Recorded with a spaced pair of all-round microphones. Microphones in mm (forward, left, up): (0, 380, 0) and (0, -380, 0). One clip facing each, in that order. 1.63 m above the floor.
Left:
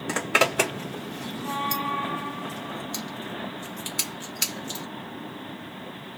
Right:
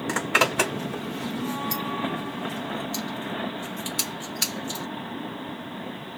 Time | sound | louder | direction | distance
0.1 | a zipper | left 2 dB | 5° right (ahead or behind) | 1.2 m